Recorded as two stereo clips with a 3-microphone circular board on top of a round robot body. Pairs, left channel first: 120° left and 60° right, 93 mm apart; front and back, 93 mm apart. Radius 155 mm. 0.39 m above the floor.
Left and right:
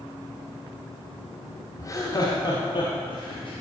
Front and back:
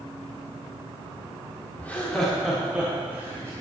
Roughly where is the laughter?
Left.